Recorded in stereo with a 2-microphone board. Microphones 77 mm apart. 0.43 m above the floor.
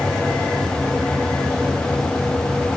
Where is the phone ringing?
I don't hear a phone ringing.